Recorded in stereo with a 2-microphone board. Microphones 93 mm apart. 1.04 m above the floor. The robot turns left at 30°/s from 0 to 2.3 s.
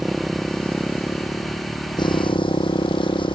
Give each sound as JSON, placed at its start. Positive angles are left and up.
{"t": 0.0, "sound": "a motorcycle", "azimuth_deg": -175}